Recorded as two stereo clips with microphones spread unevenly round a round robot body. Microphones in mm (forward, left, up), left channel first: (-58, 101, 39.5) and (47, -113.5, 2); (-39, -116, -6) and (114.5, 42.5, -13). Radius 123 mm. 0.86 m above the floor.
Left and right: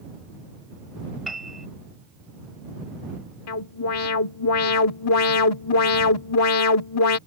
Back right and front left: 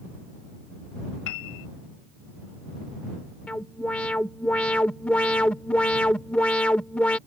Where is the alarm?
140° left.